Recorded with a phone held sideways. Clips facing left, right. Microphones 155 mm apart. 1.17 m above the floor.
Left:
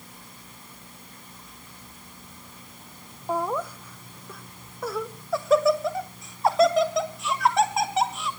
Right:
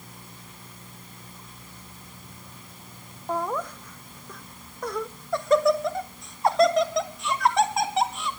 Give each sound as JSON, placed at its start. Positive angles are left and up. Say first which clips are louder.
{"t": 3.3, "sound": "laughter", "louder": "left 1 dB", "side_deg": 10, "distance_m": 1.0}